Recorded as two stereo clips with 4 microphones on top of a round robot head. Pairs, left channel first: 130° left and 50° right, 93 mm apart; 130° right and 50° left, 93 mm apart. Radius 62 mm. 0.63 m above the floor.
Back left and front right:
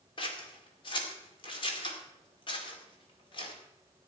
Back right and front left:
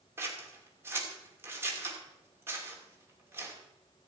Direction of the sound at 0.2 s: 110° left.